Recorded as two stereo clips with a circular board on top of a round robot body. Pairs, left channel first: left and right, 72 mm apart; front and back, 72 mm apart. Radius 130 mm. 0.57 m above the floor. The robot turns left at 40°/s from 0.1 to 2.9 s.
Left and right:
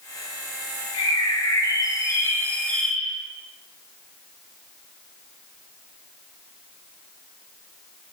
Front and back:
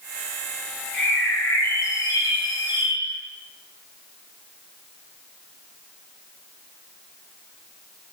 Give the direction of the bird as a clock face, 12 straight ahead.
9 o'clock.